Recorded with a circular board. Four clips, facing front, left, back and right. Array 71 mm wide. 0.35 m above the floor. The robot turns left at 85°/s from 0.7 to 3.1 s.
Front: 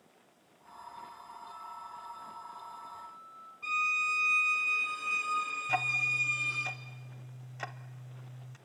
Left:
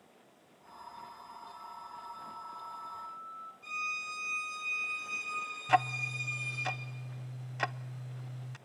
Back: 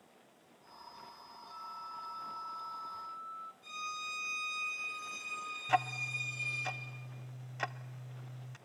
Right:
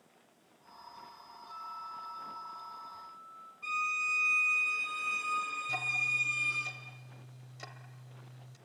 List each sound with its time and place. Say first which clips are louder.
1.5 s a flute: right 6 dB, back 2 dB; 85° right, 1.7 m; by 3.5 s 140° left, 1.7 m
3.6 s a violin: right 6 dB, front 13 dB; 30° right, 4.5 m
5.7 s ticking: left 10 dB, back 1 dB; 100° left, 0.6 m